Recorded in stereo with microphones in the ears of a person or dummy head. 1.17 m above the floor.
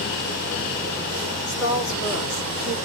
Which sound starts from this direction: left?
A woman speaking, at 1.5 s.